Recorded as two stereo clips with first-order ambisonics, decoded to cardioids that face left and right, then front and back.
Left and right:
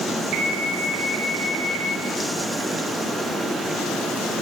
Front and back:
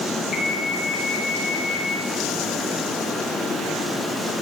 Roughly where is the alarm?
Ahead right.